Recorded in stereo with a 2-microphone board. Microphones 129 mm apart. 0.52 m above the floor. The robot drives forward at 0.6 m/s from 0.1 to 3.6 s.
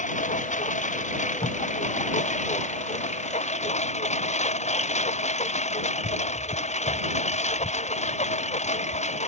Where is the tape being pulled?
60° left (ahead or behind); by 1.6 s 50° left (ahead or behind).